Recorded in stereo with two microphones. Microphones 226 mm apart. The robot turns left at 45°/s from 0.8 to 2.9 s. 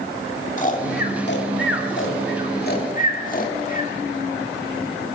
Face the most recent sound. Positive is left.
turn(degrees=35)  # may be behind; listen again after turning